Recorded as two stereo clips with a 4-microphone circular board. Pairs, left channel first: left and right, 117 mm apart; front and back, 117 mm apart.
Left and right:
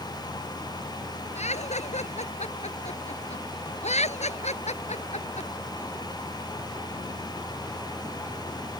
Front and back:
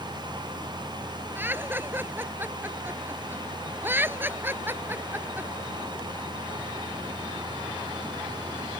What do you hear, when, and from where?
1.4 s laughter: 110° left